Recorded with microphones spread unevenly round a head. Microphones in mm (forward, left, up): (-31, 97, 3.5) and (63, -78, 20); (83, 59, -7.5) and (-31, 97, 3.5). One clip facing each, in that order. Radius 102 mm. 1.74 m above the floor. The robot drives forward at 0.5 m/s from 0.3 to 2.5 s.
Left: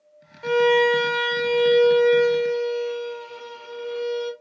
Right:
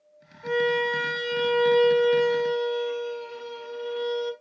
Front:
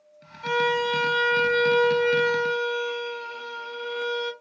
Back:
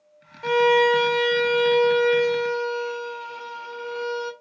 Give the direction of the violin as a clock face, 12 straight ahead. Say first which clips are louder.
Left 7 dB, back 7 dB; 8 o'clock.